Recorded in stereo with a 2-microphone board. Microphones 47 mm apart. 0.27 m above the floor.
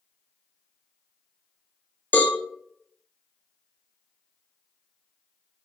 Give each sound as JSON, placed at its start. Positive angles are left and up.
{"t": 2.1, "sound": "a cowbell", "side_deg": 45, "distance_m": 0.6}